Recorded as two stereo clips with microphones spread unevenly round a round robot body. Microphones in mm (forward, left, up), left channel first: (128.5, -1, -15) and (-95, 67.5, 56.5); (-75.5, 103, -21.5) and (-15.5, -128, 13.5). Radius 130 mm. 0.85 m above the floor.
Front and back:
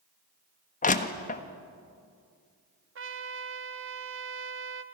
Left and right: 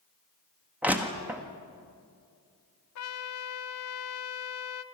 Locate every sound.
0.8 s crushing: 15° left, 1.4 m
3.0 s a trumpet: 120° left, 1.2 m